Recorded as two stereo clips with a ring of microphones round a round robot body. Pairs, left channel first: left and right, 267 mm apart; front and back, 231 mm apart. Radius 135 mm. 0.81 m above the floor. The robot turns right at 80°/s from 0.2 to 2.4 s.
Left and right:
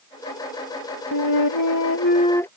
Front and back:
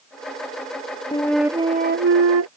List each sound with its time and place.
1.1 s a flute: 70° left; by 2.5 s 175° left